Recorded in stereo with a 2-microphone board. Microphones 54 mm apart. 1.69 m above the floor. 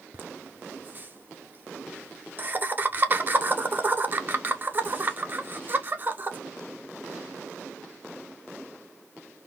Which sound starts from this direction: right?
Laughter, at 0.1 s.